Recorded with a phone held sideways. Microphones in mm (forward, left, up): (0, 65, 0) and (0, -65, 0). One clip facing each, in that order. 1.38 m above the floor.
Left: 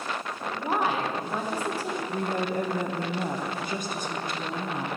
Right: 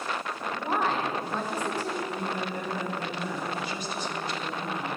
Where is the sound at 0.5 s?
10° left (ahead or behind), 0.9 m.